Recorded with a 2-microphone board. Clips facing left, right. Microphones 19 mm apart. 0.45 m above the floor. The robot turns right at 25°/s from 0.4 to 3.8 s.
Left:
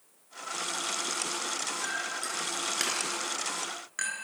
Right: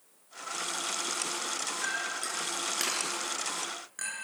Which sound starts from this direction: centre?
A clink, at 1.8 s.